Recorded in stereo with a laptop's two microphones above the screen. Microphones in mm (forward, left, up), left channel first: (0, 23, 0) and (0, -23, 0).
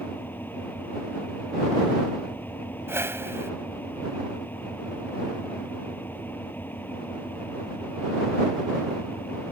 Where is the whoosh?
70° right (ahead or behind).